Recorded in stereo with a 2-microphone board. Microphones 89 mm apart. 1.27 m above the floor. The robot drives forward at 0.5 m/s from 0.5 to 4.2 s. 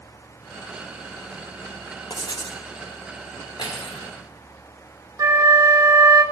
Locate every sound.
2.1 s writing: 55° left (ahead or behind), 0.8 m; by 2.6 s 60° left (ahead or behind), 0.7 m
3.6 s cutlery clinking: 70° left (ahead or behind), 2 m
5.2 s a flute: 40° right (ahead or behind), 1.2 m